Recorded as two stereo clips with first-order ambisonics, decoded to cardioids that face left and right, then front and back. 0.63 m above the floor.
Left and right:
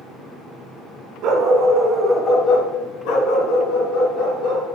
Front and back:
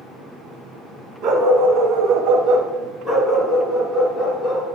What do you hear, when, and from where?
1.2 s a dog barking: 140° right, 1.5 m; by 4.7 s 80° left, 3 m